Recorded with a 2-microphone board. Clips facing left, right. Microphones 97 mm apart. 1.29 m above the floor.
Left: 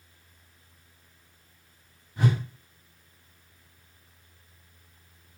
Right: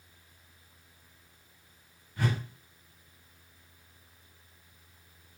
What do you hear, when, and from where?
2.2 s a whoosh: 25° left (ahead or behind), 1.2 m